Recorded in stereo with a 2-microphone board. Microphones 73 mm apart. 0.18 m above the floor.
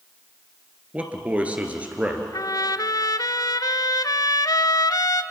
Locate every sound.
0.9 s a man speaking: 20° right (ahead or behind), 2.5 m
2.3 s a trumpet: 60° left (ahead or behind), 0.6 m